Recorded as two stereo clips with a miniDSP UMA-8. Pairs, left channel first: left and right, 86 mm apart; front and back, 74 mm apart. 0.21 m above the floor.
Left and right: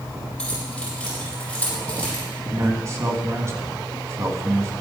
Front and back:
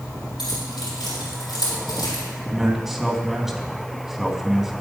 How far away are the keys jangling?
About 6 m.